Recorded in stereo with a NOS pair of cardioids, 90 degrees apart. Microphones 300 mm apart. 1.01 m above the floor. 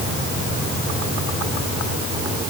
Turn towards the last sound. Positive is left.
No sound to turn to.